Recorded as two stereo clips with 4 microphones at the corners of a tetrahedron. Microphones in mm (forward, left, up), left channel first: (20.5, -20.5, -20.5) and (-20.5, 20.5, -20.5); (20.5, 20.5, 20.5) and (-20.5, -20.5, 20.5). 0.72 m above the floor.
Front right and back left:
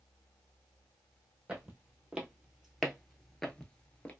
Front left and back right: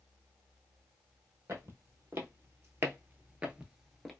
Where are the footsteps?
155° right, 1.4 m; by 4.1 s 40° right, 0.7 m.